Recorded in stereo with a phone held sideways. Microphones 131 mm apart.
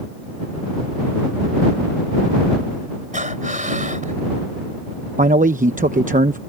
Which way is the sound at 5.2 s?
85° right.